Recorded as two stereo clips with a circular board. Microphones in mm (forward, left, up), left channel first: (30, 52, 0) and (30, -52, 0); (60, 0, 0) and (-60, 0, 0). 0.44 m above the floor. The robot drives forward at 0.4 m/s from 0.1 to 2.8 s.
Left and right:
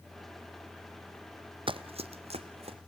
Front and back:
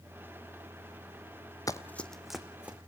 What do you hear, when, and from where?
1.7 s running footsteps: 60° right, 1.0 m; by 2.8 s 100° right, 2.5 m